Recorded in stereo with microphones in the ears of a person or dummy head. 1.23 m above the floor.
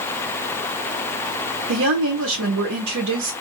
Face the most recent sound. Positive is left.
turn(degrees=-80)